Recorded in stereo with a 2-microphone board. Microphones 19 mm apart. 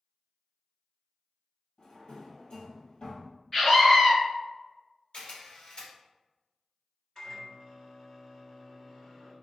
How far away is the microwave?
About 1.2 m.